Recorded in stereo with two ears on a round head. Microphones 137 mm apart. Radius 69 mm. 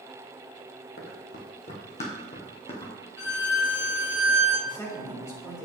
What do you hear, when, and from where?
1.0 s running footsteps: 60° left (ahead or behind), 2.5 m; by 2.9 s 30° left (ahead or behind), 2.5 m
3.2 s a violin: 80° left, 3 m
4.7 s a man speaking: 20° left (ahead or behind), 2.5 m